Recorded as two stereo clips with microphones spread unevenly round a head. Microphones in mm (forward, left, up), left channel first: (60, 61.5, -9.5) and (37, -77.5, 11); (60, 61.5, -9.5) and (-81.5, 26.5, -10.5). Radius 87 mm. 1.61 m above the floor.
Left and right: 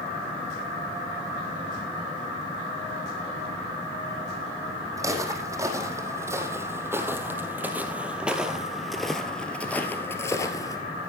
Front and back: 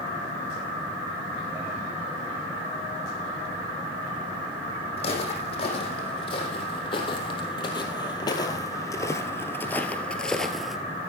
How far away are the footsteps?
About 3.5 m.